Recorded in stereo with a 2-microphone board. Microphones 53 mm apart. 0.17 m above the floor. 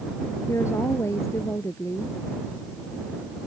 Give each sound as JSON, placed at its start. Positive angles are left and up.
{"t": 0.5, "sound": "a woman speaking", "side_deg": 60}